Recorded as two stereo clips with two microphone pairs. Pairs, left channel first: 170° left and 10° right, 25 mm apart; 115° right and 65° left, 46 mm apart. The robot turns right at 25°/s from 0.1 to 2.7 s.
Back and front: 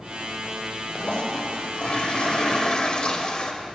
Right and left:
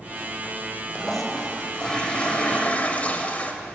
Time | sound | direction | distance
0.9 | a toilet flushing | 160° left | 0.8 m